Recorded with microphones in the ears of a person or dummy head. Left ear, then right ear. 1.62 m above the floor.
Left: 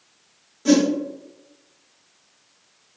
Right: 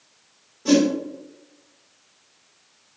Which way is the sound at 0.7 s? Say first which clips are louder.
Even; 40° left (ahead or behind).